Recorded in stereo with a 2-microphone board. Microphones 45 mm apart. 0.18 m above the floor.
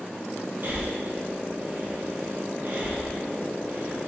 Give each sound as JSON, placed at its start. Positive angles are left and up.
{"t": 0.6, "sound": "breathing", "side_deg": -55, "distance_m": 0.9}